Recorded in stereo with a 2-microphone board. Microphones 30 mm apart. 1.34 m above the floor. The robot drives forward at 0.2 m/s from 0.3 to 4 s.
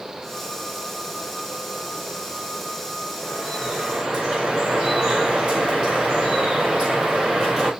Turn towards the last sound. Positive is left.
turn(degrees=-30)  # may be behind; listen again after turning